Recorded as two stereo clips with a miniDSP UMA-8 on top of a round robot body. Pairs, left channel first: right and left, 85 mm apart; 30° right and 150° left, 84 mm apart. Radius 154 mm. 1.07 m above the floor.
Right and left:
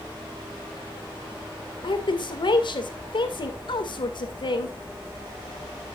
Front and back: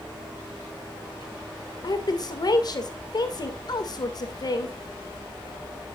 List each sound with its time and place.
1.8 s a woman speaking: 65° right, 2.0 m